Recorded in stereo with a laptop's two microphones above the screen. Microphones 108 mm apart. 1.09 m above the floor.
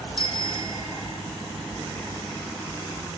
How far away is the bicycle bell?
About 3.5 m.